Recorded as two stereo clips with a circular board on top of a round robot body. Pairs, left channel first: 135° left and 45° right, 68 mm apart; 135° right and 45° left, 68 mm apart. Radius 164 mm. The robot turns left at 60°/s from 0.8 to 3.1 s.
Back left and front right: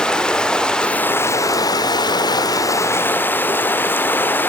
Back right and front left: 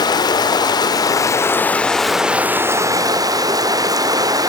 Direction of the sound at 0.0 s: 150° right.